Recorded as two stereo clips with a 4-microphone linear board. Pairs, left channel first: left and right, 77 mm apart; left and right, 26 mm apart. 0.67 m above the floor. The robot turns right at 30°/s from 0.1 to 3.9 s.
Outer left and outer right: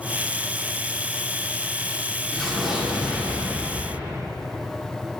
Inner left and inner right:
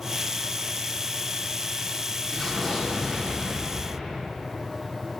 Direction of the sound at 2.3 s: 175° left.